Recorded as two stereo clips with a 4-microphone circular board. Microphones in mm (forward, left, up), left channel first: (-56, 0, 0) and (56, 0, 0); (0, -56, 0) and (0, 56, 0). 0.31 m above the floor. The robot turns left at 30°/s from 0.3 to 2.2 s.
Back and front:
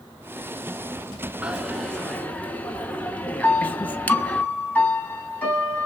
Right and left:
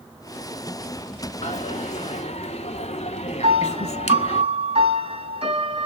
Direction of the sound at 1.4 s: 80° right.